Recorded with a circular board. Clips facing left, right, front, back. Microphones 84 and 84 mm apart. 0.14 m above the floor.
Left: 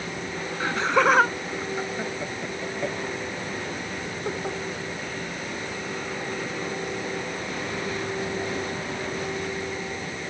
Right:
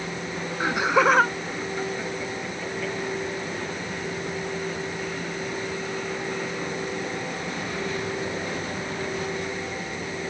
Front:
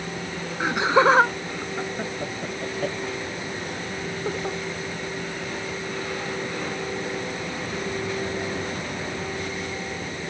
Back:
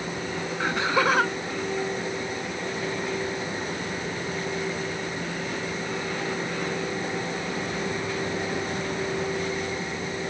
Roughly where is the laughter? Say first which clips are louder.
Right 1 dB, front 5 dB; ahead right.